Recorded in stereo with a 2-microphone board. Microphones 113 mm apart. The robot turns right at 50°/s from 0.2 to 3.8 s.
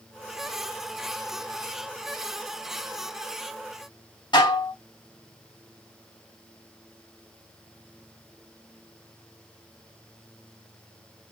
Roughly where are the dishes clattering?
Left.